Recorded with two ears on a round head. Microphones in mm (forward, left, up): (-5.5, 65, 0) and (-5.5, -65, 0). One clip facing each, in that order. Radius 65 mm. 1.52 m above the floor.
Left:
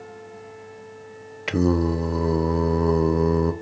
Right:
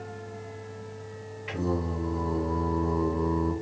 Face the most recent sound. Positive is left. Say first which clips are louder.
# left 9 dB
turn(degrees=90)